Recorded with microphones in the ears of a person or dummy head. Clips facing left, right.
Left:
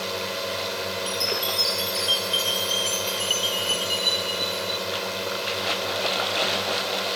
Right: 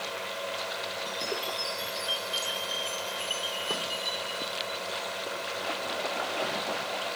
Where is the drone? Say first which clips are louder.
Left 6 dB; 55° left (ahead or behind).